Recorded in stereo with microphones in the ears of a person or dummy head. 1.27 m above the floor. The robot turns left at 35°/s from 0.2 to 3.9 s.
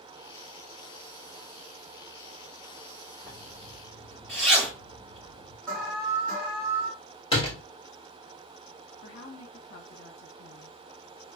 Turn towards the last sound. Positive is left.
turn(degrees=65)  # may be behind; listen again after turning